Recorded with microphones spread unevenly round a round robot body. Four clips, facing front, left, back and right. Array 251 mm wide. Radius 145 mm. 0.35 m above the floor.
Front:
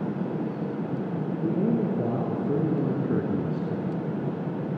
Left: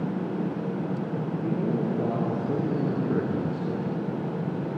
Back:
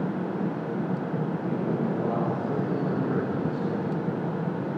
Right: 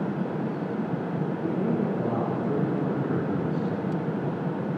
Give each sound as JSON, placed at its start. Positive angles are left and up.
{"t": 1.4, "sound": "a man speaking", "azimuth_deg": 5, "distance_m": 5.5}